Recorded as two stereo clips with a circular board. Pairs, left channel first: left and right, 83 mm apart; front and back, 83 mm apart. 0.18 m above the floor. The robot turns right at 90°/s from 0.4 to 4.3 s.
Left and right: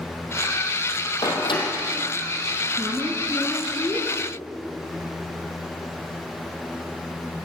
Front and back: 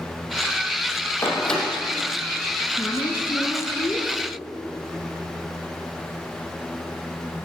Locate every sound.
1.2 s a door slam: 55° left, 3.5 m; by 1.6 s 95° left, 3.5 m
2.8 s a woman speaking: 60° right, 2.5 m; by 4.1 s 60° left, 2.5 m